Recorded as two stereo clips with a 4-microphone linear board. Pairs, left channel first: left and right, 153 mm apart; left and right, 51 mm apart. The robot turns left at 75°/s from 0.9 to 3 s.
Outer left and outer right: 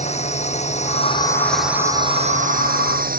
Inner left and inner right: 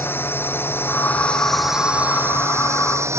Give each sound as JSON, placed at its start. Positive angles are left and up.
{"t": 0.0, "sound": "a drone", "side_deg": 50}